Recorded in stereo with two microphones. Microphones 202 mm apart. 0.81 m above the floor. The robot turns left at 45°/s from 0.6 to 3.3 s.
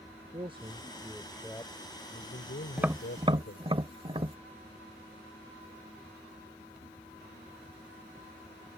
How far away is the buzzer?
No buzzer in this recording.